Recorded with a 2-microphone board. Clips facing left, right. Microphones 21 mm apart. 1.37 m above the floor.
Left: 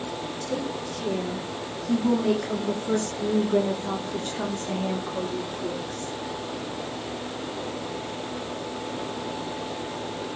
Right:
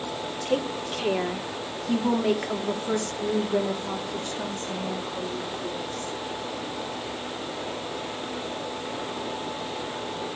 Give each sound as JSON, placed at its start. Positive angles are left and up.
{"t": 0.5, "sound": "a woman speaking", "side_deg": -70, "distance_m": 2.0}